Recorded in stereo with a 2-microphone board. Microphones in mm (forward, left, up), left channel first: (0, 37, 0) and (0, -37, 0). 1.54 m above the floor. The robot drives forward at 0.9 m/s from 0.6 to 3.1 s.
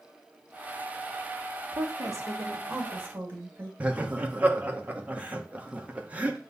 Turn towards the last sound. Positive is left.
turn(degrees=-20)  # may be behind; listen again after turning